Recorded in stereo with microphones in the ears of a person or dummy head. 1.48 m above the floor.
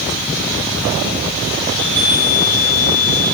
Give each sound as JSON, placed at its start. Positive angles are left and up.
{"t": 1.7, "sound": "a chime", "side_deg": -70, "distance_m": 5.0}